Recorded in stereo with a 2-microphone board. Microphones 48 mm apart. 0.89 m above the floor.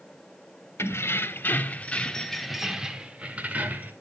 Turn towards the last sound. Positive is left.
turn(degrees=-40)  # may be behind; listen again after turning